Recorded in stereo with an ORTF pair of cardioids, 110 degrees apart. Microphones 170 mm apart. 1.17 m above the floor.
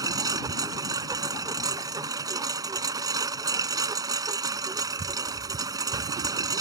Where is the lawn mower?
20° right.